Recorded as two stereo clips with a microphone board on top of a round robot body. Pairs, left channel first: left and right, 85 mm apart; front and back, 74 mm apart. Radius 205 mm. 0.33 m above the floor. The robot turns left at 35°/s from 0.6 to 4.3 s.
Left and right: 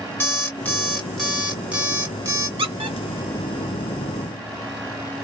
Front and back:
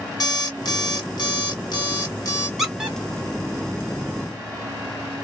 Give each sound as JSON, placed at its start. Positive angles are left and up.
{"t": 0.2, "sound": "an alarm clock", "azimuth_deg": 20, "distance_m": 1.7}
{"t": 2.6, "sound": "a squeak", "azimuth_deg": -95, "distance_m": 1.1}